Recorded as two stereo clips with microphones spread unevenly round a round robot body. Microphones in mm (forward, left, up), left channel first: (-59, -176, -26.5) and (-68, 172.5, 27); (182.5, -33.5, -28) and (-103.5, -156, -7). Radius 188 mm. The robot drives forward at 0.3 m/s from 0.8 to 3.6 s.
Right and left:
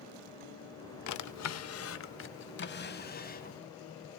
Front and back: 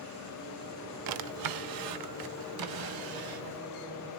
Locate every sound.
1.1 s a drawer: 130° right, 0.7 m; by 3.6 s 155° right, 1.3 m